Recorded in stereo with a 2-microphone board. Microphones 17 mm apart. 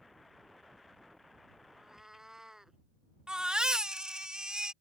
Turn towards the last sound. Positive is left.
turn(degrees=-55)  # may be behind; listen again after turning